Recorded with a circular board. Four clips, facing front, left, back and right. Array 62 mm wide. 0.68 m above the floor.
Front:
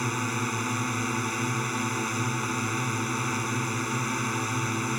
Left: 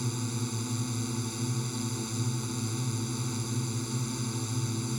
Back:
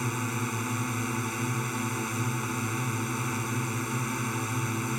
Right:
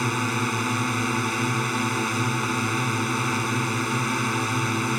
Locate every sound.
0.0 s a drone: 80° right